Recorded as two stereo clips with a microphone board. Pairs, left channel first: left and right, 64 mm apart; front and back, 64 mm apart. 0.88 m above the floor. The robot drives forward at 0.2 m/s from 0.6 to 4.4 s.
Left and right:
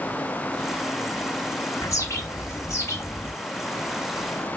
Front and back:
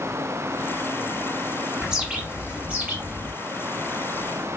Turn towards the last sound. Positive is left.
turn(degrees=135)